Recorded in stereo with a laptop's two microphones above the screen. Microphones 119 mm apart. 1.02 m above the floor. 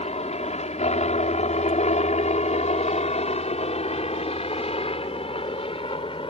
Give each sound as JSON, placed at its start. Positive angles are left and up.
{"t": 0.0, "sound": "a helicopter", "side_deg": 60}